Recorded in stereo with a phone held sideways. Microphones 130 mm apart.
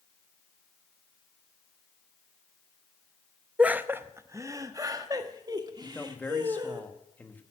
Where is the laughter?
10° right (ahead or behind), 0.6 m; by 6.8 s 35° right (ahead or behind), 2 m.